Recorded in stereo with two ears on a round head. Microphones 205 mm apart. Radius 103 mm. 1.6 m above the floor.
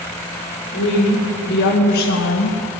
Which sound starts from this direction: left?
A woman speaking, at 0.7 s.